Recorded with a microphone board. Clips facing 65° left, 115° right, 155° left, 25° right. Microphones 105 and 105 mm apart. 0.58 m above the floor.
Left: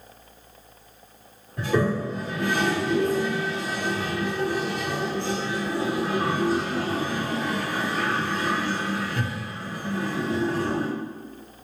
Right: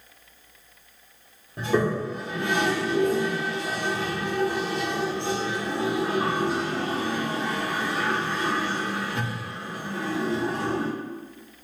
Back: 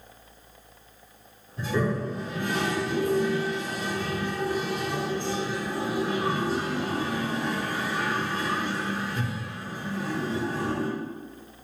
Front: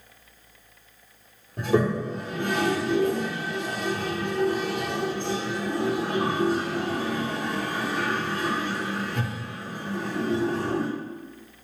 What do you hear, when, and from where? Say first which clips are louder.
1.6 s a toilet flushing: even, front 4 dB; 45° right, 0.7 m